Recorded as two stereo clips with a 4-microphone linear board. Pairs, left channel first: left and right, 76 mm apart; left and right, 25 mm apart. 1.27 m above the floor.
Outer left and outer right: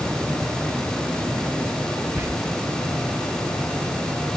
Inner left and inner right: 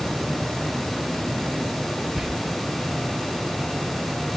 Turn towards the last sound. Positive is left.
turn(degrees=-25)  # may be behind; listen again after turning